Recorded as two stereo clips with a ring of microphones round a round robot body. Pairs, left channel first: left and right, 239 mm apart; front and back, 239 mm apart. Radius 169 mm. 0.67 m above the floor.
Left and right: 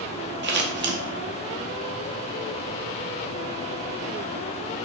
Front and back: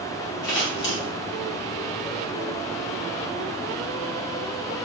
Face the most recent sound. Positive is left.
turn(degrees=-50)